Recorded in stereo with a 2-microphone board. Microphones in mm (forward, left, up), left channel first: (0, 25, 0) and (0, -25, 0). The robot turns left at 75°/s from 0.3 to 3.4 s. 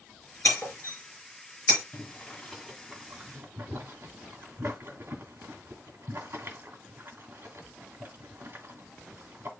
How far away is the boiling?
About 1.5 m.